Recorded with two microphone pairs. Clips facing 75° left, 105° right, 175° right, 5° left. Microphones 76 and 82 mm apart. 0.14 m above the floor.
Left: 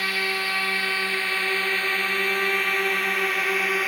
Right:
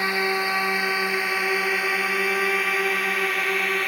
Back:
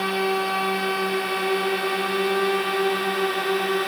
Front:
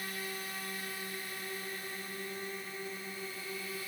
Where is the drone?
Straight behind; by 3.9 s 160° left.